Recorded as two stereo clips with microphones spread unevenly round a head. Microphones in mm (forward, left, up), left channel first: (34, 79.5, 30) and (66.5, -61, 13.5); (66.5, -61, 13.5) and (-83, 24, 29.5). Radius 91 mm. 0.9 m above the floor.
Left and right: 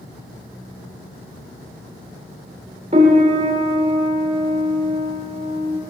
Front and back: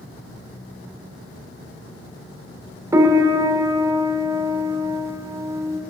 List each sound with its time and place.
2.9 s a piano: 135° right, 0.5 m